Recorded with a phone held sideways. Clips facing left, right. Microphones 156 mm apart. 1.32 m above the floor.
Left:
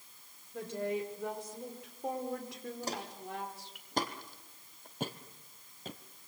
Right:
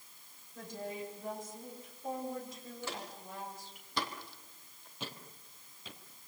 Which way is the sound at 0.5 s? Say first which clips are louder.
Left 7 dB; 75° left (ahead or behind).